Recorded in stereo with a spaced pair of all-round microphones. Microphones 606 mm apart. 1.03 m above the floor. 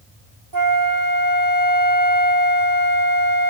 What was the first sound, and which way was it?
A flute, 30° right (ahead or behind).